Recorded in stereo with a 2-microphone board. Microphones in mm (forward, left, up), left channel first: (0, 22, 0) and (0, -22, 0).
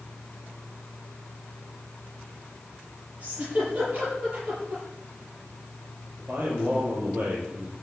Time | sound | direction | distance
3.2 | a giggle | 30° right (ahead or behind) | 9.5 m
6.2 | a man speaking | 40° right (ahead or behind) | 8 m